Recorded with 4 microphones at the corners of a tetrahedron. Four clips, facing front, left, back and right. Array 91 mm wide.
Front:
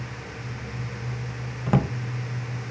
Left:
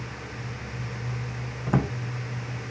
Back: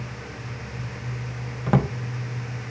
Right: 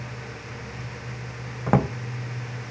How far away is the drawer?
About 0.7 m.